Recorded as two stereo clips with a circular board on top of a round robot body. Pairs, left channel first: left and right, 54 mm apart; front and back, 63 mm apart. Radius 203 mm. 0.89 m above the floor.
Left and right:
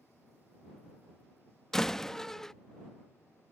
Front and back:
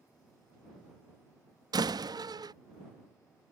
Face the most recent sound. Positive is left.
turn(degrees=170)